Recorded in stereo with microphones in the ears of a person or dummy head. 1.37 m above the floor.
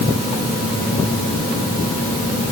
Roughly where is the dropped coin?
No dropped coin in this recording.